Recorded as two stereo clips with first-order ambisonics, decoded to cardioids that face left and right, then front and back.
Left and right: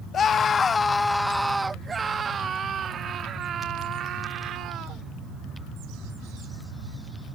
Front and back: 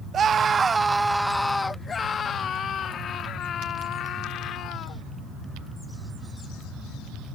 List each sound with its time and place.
0.1 s a scream: 130° left; by 5.0 s 45° right